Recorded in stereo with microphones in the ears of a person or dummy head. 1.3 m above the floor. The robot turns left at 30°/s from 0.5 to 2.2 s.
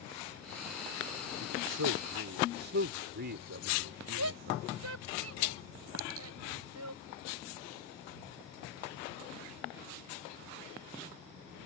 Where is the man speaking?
80° right; by 4.7 s 55° right (ahead or behind).